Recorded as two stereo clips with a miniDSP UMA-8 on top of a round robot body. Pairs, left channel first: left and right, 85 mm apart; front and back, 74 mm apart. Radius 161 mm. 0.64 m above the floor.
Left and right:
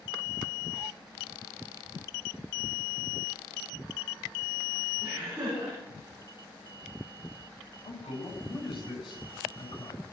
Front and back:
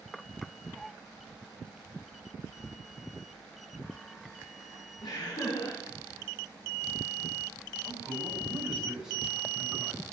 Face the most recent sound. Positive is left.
turn(degrees=100)